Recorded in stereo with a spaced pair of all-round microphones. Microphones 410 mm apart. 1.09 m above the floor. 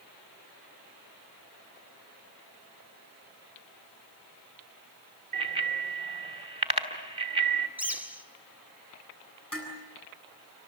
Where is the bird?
5° right (ahead or behind), 2.5 m.